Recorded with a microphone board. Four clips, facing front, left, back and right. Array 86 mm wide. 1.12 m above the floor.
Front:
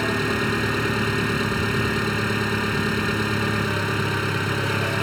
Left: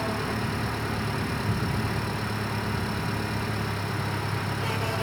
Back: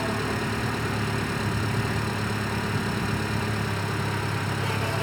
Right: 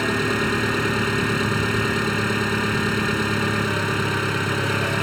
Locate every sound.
0.0 s an engine running: 55° right